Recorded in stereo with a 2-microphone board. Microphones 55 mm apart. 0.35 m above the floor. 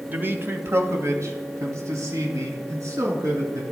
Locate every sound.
0.1 s a man speaking: 30° right (ahead or behind), 1.0 m; by 3.6 s 80° right, 4 m